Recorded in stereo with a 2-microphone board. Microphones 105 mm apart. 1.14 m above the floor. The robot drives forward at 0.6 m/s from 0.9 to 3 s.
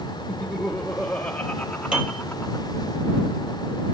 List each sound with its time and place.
0.3 s laughter: 5° left (ahead or behind), 1.5 m; by 2.6 s 15° left (ahead or behind), 0.7 m
1.9 s a piano: 10° right (ahead or behind), 5 m